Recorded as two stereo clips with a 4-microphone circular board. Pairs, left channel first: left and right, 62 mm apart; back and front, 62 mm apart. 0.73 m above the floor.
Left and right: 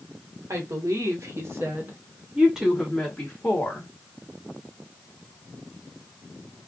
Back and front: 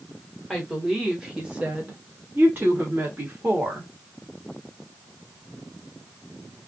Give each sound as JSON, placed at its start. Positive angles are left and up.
{"t": 0.5, "sound": "a woman speaking", "azimuth_deg": -85, "distance_m": 1.4}